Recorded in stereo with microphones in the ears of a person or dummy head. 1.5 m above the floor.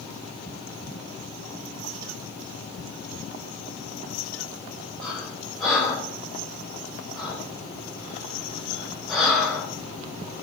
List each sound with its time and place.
5.0 s breathing: 5° left (ahead or behind), 4.5 m